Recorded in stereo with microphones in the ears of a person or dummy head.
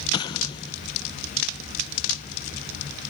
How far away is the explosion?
About 0.5 m.